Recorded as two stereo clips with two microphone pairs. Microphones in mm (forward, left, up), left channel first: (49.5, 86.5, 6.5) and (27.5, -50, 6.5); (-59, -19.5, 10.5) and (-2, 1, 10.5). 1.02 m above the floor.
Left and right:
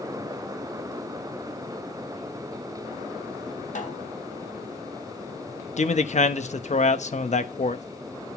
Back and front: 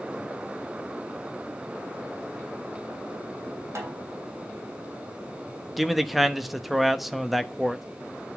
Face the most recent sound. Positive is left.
turn(degrees=110)